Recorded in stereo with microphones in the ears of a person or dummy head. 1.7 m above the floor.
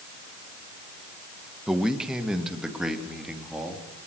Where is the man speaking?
Centre (ahead or behind), 1.7 m.